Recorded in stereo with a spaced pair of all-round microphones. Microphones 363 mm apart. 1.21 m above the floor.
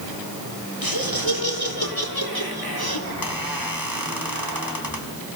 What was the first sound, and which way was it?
Laughter, 70° left (ahead or behind).